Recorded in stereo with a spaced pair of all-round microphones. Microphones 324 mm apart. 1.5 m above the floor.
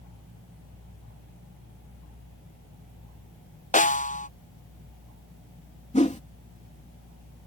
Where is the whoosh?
20° left (ahead or behind).